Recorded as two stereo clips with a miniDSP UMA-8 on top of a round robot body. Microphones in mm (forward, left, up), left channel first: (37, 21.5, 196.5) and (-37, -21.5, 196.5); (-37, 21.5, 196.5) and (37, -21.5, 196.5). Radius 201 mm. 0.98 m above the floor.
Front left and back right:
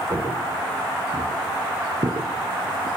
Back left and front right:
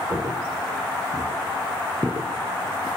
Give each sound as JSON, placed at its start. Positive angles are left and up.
{"t": 0.1, "sound": "footsteps", "azimuth_deg": -85, "distance_m": 7.0}